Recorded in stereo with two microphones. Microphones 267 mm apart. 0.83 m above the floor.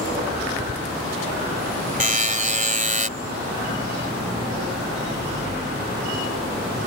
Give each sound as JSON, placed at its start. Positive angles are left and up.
{"t": 2.0, "sound": "a buzzer", "side_deg": -30}